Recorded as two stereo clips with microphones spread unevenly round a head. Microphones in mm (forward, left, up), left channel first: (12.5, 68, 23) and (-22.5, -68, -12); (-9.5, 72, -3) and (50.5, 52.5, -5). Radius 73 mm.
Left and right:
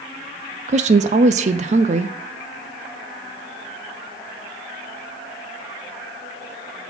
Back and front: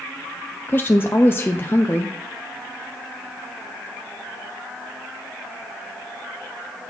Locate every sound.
0.7 s a woman speaking: 145° right, 0.5 m